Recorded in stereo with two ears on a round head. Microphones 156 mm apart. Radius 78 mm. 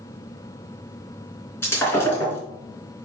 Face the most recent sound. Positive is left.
turn(degrees=15)  # may be behind; listen again after turning